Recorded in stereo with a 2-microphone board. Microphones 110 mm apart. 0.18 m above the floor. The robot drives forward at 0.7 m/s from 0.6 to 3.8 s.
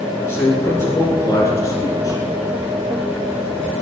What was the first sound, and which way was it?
A man speaking, 25° left (ahead or behind).